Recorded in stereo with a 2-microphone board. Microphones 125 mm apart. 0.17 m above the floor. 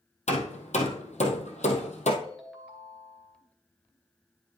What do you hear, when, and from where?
0.3 s hammering: 65° left (ahead or behind), 1.9 m
2.2 s a ringtone: centre (ahead or behind), 2.5 m